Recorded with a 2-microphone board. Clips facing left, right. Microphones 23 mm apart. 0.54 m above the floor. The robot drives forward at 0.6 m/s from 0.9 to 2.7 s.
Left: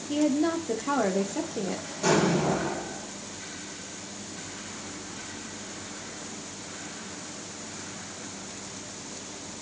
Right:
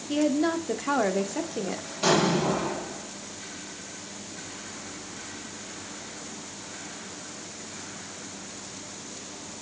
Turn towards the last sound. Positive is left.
turn(degrees=-60)  # may be behind; listen again after turning